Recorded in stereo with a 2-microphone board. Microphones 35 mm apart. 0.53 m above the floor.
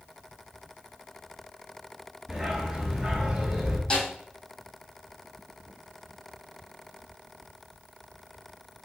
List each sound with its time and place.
2.3 s a dog barking: 15° right (ahead or behind), 2 m
3.9 s a snare drum: 25° left (ahead or behind), 4 m